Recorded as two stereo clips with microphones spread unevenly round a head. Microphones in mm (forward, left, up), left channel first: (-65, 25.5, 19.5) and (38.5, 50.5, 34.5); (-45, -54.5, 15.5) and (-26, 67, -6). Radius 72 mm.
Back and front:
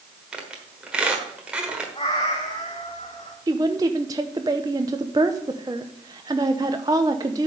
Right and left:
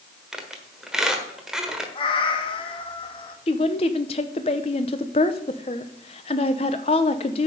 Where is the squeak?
25° right, 1.3 m.